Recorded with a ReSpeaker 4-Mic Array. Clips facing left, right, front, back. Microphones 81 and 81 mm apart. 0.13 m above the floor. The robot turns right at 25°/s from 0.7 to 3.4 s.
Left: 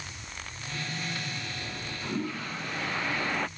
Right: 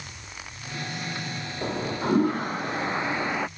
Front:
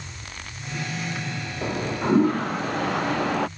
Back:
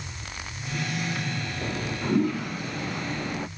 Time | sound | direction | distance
1.6 | a toilet flushing | 60° right | ?